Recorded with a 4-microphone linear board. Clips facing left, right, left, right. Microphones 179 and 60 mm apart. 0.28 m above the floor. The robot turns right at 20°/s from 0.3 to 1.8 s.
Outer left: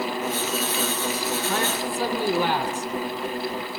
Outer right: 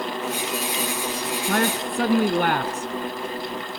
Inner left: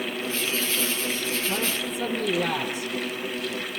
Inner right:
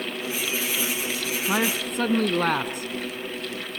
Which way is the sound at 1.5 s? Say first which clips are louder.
Outer right 3 dB, inner right 3 dB; 60° right (ahead or behind).